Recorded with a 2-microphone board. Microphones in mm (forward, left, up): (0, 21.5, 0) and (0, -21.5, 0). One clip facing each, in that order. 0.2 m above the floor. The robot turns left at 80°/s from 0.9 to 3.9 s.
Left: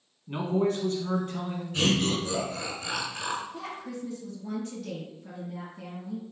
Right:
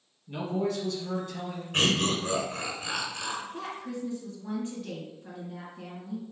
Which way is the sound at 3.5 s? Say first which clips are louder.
Right 1 dB; 45° right (ahead or behind).